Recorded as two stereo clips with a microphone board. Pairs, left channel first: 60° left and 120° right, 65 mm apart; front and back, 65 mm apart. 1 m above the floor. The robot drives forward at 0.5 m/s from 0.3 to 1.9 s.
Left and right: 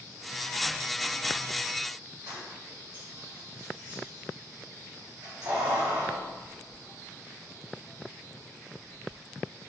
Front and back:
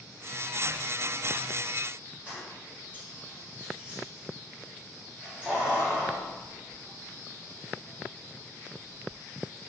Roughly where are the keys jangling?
Behind right.